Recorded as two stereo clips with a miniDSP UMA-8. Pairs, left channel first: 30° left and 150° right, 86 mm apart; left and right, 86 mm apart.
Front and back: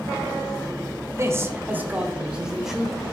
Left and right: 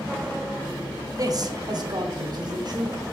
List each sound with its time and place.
1.2 s a man speaking: 110° right, 1.1 m; by 3.0 s 60° right, 1.7 m